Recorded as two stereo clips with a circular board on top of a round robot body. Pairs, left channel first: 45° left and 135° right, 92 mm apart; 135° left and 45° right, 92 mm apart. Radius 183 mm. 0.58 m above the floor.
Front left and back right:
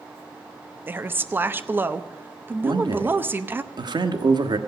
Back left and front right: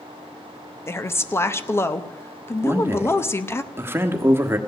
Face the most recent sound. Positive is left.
turn(degrees=-105)